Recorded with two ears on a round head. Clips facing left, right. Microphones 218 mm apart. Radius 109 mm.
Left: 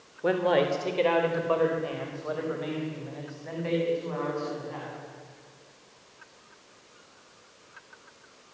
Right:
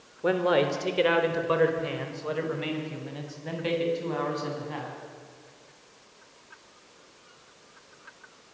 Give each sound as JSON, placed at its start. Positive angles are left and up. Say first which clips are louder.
{"t": 0.2, "sound": "a man speaking", "louder": "even", "side_deg": 0, "distance_m": 3.5}